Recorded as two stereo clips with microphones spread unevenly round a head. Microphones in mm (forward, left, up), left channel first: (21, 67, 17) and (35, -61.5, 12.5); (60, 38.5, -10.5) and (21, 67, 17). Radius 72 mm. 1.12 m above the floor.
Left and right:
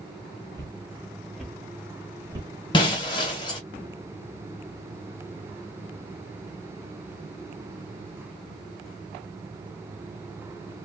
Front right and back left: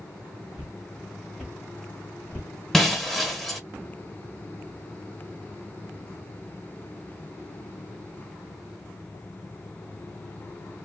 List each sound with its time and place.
0.5 s footsteps: 160° left, 1.5 m; by 2.5 s 120° right, 1.3 m
2.7 s breaking glass: 100° left, 0.9 m